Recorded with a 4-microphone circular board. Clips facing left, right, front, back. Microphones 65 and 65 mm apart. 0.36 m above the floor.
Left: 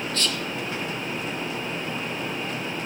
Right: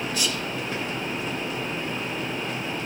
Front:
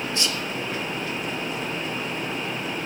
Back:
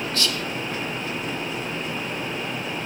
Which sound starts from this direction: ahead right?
Whispering, at 0.1 s.